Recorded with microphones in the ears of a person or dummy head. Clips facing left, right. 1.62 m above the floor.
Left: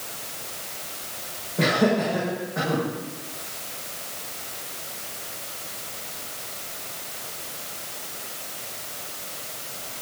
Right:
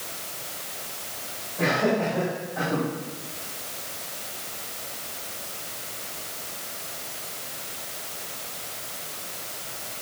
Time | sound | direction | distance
1.6 | laughter | 60° left (ahead or behind) | 6 m